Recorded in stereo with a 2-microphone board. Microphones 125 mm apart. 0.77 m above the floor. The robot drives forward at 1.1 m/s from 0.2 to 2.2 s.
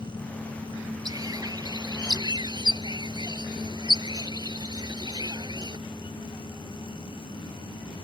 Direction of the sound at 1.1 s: 30° right (ahead or behind).